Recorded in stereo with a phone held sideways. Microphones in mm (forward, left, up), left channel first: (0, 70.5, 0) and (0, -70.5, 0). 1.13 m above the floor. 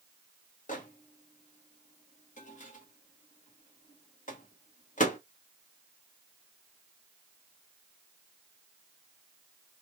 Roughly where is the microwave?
Left.